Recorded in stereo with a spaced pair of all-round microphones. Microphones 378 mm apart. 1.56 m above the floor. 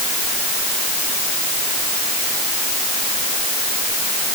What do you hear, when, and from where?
Only background noise.